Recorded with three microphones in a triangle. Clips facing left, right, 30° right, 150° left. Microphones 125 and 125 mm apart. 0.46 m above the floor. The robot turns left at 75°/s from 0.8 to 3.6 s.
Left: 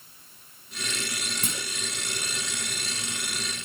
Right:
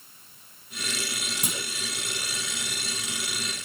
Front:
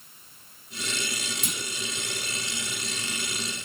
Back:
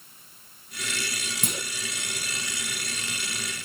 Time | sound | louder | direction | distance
1.4 | a clunk | right 3 dB, back 3 dB | 165° right | 3 m